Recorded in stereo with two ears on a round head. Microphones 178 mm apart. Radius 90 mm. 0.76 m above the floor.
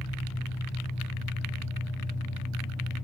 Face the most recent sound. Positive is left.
turn(degrees=65)  # may be behind; listen again after turning